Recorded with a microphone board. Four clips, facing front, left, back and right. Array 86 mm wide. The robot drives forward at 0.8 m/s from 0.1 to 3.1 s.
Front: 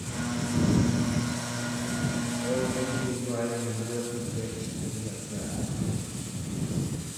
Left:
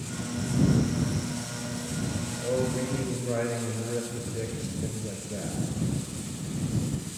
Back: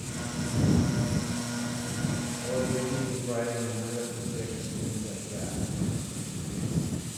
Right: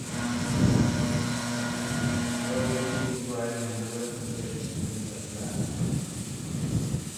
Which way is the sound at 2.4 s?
80° left.